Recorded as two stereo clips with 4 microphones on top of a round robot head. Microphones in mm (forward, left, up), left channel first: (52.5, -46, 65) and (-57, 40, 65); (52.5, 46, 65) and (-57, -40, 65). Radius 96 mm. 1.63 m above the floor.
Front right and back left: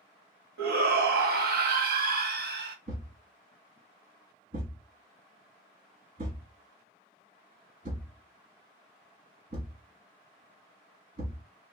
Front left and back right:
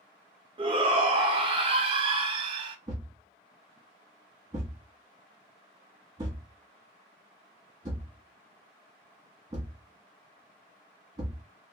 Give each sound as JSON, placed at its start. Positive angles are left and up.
{"t": 0.6, "sound": "a shout", "azimuth_deg": 160, "distance_m": 0.8}
{"t": 2.9, "sound": "a thud", "azimuth_deg": 155, "distance_m": 1.3}